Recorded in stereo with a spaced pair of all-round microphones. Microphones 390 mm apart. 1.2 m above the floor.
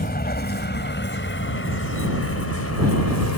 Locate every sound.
0.0 s a vehicle: 25° left (ahead or behind); by 3.4 s 45° left (ahead or behind)